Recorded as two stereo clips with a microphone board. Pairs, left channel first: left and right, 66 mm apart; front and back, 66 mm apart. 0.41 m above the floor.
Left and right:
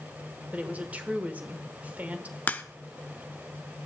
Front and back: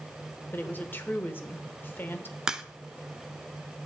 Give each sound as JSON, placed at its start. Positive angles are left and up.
{"t": 0.5, "sound": "a woman speaking", "azimuth_deg": -40, "distance_m": 1.1}
{"t": 2.5, "sound": "a crack", "azimuth_deg": 115, "distance_m": 0.6}